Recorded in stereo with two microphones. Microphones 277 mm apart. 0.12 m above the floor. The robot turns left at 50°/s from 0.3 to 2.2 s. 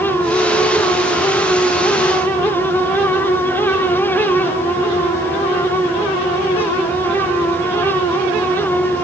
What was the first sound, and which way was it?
Only background noise.